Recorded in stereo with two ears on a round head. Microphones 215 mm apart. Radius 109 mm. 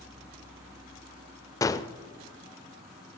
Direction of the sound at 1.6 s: 15° left (ahead or behind).